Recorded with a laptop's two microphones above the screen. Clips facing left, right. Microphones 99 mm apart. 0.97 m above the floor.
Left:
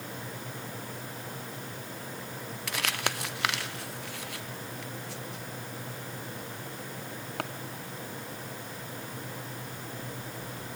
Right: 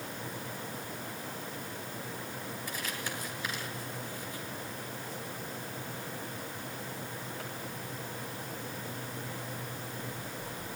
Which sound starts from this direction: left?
Crumpling, at 2.7 s.